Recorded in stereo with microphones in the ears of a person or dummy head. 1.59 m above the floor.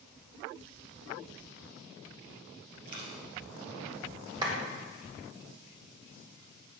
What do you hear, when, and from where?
2.9 s a dropped coin: 55° right (ahead or behind), 2.5 m
4.4 s a clap: 25° right (ahead or behind), 1.4 m